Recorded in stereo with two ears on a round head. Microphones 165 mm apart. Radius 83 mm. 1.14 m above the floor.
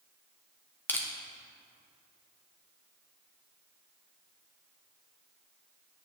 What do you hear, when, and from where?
0.9 s crushing: 10° left (ahead or behind), 0.9 m